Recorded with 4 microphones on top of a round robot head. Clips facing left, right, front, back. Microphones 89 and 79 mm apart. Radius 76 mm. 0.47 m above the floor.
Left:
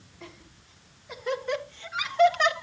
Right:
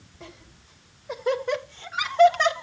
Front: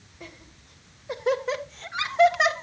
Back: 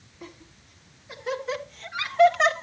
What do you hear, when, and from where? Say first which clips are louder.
0.2 s laughter: right 1 dB, back 1 dB; 35° right, 3 m; by 2.6 s 85° right, 1.2 m